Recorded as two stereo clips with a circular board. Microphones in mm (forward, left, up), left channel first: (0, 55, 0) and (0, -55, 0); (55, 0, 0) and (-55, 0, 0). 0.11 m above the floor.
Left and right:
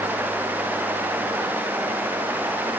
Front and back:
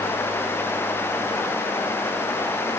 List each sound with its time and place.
Only background noise.